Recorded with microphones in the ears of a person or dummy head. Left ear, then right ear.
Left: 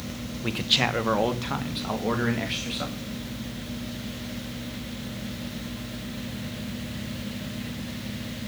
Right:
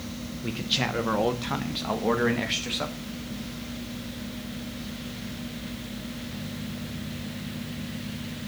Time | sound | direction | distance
0.4 | a man speaking | 30° left (ahead or behind) | 0.9 m